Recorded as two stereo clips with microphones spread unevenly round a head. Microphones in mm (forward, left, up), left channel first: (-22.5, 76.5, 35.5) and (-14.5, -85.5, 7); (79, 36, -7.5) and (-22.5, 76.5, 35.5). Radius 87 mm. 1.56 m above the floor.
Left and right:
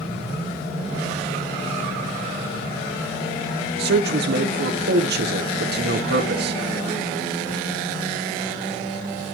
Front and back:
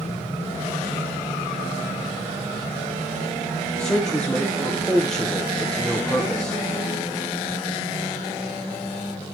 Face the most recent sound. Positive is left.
turn(degrees=-115)